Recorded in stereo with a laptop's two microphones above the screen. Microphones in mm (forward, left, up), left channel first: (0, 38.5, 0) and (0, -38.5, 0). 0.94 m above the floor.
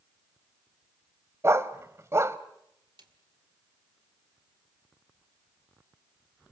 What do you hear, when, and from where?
1.4 s a dog barking: 35° right (ahead or behind), 1.1 m
3.0 s a snare drum: 75° right (ahead or behind), 2 m